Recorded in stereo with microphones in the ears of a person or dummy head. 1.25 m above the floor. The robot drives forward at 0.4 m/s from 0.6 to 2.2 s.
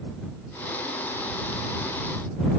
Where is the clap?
I don't hear a clap.